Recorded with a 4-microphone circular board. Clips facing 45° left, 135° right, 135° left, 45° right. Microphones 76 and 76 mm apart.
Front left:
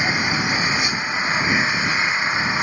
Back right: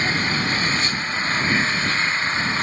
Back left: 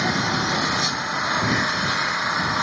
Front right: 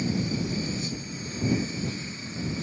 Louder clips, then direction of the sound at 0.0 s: Front left 1 dB, back left 6 dB; 120° left.